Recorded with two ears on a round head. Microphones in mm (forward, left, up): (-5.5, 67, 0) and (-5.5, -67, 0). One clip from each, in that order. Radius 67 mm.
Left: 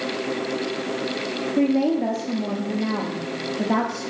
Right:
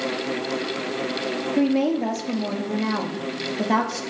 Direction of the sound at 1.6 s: 30° right (ahead or behind).